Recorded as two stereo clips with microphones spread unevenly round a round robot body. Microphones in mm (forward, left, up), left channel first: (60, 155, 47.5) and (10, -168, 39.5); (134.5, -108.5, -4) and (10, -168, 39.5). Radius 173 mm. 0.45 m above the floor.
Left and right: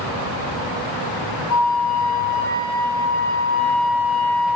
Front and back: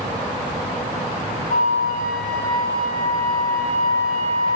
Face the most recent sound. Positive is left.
turn(degrees=45)